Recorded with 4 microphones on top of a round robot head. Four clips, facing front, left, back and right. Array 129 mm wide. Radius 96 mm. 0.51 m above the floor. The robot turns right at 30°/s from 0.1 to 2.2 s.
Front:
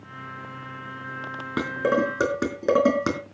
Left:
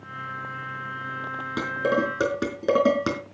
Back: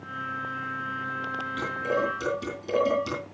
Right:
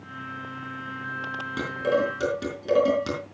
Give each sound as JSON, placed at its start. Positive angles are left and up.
{"t": 1.6, "sound": "dishes clattering", "azimuth_deg": 15, "distance_m": 4.5}